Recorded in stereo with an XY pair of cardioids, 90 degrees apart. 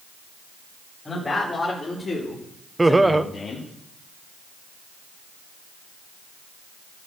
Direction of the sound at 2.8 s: 15° right.